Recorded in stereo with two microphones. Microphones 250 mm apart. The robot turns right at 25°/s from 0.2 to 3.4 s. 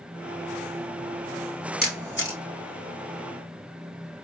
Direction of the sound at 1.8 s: 35° left (ahead or behind).